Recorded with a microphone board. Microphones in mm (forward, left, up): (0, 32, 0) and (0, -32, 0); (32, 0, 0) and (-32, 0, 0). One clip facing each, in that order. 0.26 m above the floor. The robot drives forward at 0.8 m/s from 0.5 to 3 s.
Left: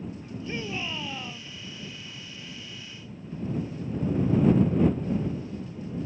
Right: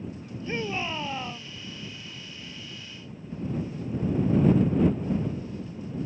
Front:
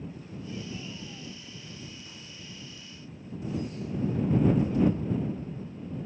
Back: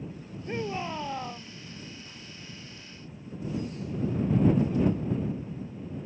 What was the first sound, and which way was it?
A shout, 150° right.